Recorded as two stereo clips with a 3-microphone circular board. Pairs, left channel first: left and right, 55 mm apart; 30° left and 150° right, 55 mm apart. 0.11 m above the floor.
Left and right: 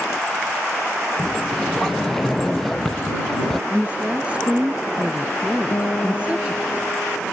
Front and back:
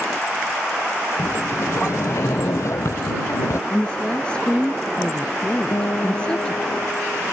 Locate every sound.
1.2 s a sliding door: 5° left
3.7 s a woman speaking: 30° right
5.7 s a guitar: 45° left